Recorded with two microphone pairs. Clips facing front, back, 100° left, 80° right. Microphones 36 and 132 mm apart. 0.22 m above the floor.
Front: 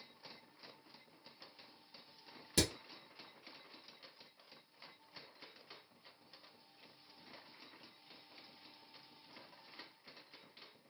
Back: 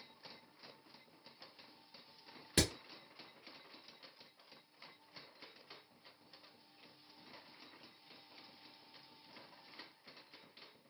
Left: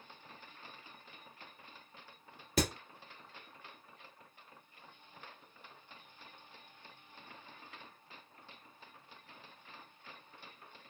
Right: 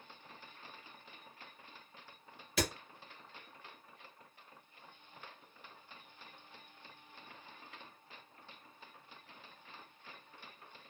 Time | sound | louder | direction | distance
2.6 | hammering | back 1 dB, left 3 dB | 135° left | 1.7 m